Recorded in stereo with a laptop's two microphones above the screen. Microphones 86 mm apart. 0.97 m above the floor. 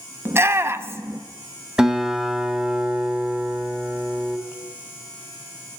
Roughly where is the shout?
Right.